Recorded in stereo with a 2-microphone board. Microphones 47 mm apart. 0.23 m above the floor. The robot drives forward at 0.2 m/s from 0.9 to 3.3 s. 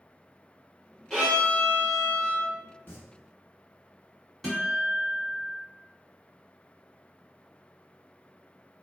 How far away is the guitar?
About 1.7 m.